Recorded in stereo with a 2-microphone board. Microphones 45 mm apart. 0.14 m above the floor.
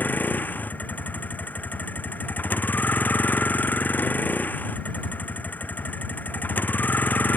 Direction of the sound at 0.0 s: 45° left (ahead or behind).